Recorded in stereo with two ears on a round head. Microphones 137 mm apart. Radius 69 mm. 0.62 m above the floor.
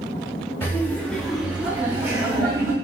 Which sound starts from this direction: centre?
Laughter, at 0.6 s.